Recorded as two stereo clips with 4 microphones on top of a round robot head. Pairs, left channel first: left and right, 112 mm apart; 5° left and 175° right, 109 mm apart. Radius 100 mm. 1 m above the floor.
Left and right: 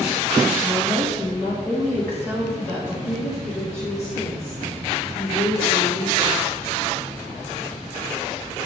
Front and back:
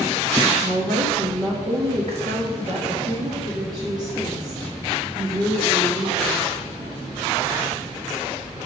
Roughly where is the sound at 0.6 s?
Behind.